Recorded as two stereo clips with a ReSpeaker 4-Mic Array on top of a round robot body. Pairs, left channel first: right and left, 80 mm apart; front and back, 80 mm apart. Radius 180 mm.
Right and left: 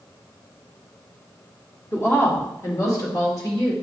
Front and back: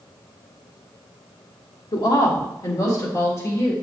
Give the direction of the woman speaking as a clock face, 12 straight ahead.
1 o'clock.